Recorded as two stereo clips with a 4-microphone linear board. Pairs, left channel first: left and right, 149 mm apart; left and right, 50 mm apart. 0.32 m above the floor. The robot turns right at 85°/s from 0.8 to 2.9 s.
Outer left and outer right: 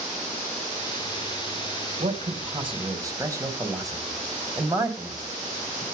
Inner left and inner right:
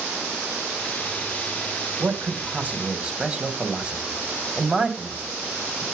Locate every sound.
2.0 s a man speaking: 50° right (ahead or behind), 2.5 m; by 5.8 s 25° right (ahead or behind), 2.5 m